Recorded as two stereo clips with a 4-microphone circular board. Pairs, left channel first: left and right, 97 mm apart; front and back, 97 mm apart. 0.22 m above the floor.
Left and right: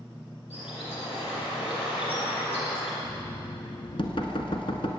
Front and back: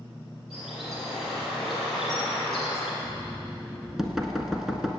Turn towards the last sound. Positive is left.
turn(degrees=95)